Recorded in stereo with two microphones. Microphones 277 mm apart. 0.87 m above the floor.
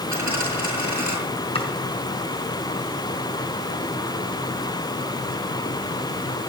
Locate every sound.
0.1 s a dropped coin: 85° right, 8.5 m
1.6 s chopping: 20° left (ahead or behind), 5 m